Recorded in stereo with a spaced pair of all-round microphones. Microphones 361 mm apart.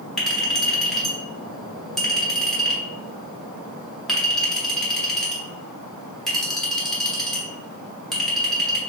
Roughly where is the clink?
Centre.